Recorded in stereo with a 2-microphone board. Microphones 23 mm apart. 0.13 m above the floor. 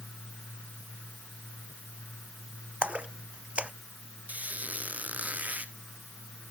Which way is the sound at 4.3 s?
75° right (ahead or behind).